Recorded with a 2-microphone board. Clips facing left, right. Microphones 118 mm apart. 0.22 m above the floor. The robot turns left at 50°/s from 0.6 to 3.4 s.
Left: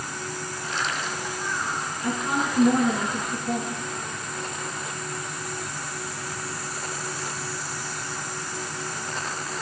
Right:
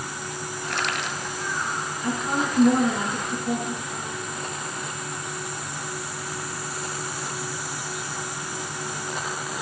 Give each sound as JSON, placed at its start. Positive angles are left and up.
{"t": 0.7, "sound": "crushing", "side_deg": -70, "distance_m": 1.3}
{"t": 2.0, "sound": "a woman speaking", "azimuth_deg": 25, "distance_m": 2.5}